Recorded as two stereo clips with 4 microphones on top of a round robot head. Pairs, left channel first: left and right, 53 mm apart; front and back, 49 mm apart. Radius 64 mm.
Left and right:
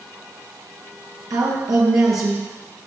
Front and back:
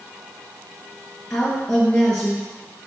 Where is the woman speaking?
75° right, 1.2 m.